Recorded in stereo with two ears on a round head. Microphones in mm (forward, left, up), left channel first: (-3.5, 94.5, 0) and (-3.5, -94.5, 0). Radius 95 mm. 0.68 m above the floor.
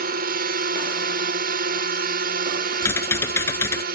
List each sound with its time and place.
0.0 s a drone: 50° right (ahead or behind)
2.8 s typing on a keyboard: 10° left (ahead or behind)